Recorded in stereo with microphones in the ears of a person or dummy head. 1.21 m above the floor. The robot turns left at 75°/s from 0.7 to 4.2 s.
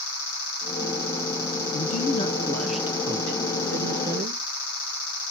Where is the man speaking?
65° left, 0.6 m; by 4.4 s 120° right, 0.6 m.